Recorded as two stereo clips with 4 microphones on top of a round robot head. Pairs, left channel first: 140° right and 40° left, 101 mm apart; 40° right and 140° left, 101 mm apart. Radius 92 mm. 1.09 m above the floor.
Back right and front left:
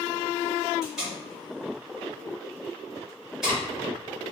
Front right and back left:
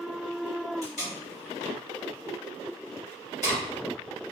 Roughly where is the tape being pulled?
Ahead right.